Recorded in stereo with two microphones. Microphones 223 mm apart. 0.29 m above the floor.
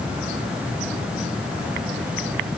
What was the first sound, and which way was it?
Only background noise.